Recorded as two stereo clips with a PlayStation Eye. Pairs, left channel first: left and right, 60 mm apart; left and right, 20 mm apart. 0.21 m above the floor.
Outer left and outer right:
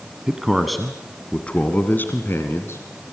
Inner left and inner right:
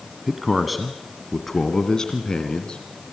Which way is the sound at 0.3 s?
10° right (ahead or behind).